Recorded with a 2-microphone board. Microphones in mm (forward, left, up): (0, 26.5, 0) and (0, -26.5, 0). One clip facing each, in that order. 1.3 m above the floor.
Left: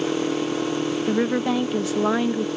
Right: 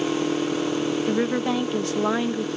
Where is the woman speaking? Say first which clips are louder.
Left 3 dB; 5° left (ahead or behind).